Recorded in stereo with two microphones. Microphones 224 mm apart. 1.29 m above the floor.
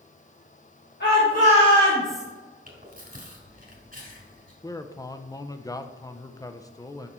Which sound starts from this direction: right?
Chewing, at 2.7 s.